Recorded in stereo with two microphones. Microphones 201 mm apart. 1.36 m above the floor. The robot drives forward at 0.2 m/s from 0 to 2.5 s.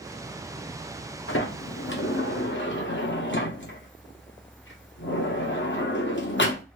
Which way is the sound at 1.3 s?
75° left (ahead or behind).